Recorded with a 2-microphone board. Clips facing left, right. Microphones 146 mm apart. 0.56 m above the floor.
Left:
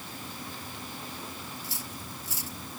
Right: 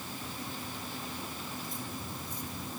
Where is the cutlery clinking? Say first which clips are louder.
Right 2 dB; 85° left.